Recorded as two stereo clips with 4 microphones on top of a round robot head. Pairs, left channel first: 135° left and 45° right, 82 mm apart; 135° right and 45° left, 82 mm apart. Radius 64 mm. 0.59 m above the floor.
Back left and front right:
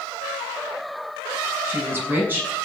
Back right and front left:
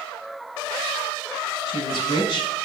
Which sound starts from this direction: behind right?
A woman speaking, at 1.6 s.